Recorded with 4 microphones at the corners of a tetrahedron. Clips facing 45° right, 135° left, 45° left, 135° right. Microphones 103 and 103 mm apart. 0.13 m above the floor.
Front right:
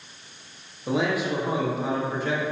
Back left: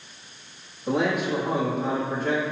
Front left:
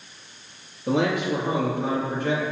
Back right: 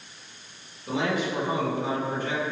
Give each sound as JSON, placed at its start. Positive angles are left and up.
{"t": 0.9, "sound": "a man speaking", "azimuth_deg": 40, "distance_m": 3.0}